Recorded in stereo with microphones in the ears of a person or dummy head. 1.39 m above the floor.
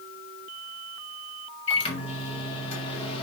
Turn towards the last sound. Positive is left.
turn(degrees=30)  # may be behind; listen again after turning